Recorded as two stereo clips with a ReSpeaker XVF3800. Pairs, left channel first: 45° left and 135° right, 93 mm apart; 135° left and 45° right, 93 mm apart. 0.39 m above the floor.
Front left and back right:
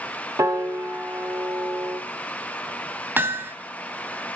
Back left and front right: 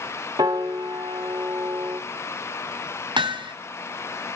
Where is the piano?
80° right, 1.9 m.